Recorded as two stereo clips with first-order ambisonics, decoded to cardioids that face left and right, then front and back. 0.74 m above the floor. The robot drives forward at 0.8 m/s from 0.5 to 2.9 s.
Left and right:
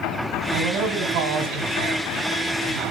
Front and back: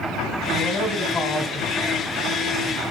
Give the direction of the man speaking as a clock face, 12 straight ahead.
2 o'clock.